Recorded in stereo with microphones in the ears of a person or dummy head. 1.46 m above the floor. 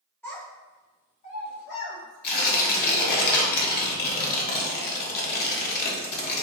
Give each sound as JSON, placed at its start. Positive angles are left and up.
{"t": 0.2, "sound": "a child speaking", "side_deg": 5, "distance_m": 1.6}
{"t": 2.2, "sound": "tearing paper", "side_deg": 55, "distance_m": 1.1}